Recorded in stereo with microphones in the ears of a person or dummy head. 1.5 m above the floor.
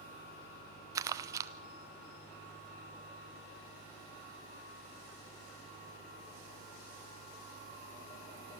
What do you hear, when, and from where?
0.9 s crumpling: 25° right (ahead or behind), 0.7 m